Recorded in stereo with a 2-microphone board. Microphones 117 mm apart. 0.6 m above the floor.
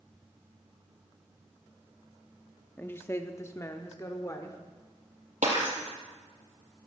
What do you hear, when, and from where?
2.8 s a woman speaking: 15° left (ahead or behind), 0.7 m; by 4.6 s 30° left (ahead or behind), 1.5 m
5.4 s breaking glass: 80° right, 4 m